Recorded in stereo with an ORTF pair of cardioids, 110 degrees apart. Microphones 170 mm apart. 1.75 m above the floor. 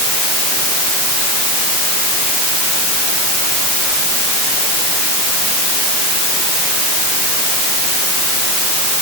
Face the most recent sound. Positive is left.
No sound to turn to.